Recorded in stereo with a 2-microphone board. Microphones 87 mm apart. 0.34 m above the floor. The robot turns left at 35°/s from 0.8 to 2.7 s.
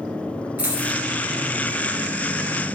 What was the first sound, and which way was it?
A dropped coin, 15° right (ahead or behind).